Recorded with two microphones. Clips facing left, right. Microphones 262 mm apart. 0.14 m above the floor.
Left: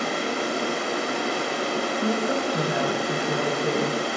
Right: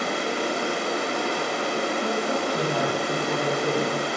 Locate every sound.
0.0 s running water: centre (ahead or behind), 1.2 m
2.0 s a woman speaking: 15° left (ahead or behind), 1.7 m